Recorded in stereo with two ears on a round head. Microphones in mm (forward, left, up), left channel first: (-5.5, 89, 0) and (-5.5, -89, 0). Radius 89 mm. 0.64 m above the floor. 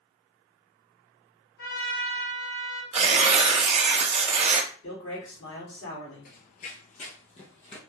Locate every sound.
1.6 s a trumpet: 85° left, 2 m
2.9 s tearing paper: 30° right (ahead or behind), 0.6 m
4.8 s a man speaking: 60° left (ahead or behind), 1.9 m
6.2 s running footsteps: 45° left (ahead or behind), 0.8 m; by 7.8 s 30° left (ahead or behind), 1.5 m